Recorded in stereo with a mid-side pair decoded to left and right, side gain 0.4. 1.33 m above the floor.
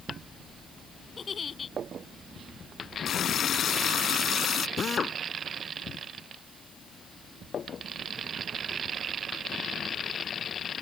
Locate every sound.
1.2 s a giggle: 45° left
3.0 s a running tap: 65° left
4.8 s a drill: 50° left